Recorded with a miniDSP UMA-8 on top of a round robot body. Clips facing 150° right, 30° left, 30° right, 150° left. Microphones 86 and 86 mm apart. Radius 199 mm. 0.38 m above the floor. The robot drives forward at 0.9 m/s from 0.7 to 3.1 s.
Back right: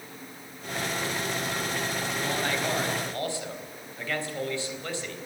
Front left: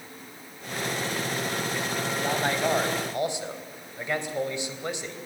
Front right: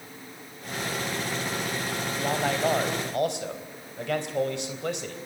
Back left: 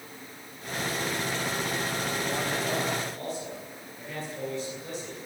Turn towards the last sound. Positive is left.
turn(degrees=-40)